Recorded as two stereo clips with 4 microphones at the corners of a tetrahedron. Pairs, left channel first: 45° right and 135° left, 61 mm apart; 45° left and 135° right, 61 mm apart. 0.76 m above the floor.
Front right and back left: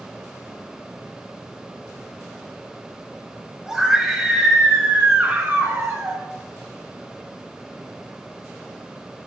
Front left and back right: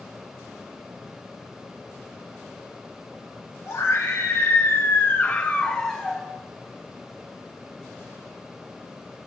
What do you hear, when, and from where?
3.7 s a scream: 55° left, 2 m; by 6.2 s 145° left, 1.1 m